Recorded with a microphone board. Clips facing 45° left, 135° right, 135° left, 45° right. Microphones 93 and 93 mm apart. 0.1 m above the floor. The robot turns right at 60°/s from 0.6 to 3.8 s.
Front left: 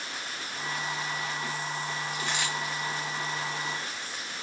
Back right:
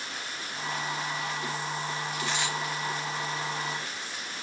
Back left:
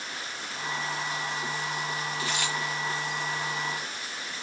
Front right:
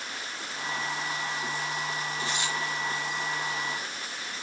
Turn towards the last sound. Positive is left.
turn(degrees=-145)